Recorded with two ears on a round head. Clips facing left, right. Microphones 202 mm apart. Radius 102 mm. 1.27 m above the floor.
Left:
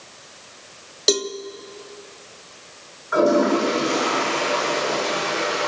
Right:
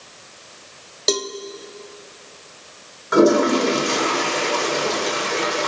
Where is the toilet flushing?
55° right (ahead or behind), 6 m.